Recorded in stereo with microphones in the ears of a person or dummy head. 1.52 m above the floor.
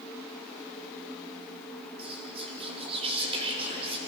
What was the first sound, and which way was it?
Whispering, 35° right (ahead or behind).